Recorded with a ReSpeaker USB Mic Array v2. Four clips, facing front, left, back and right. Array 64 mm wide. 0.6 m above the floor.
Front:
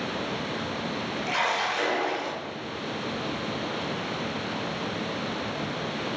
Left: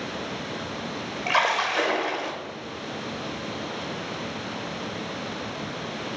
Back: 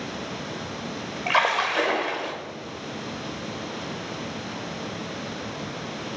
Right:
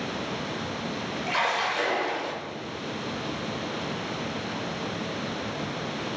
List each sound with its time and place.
1.3 s a splash: 150° left, 1.1 m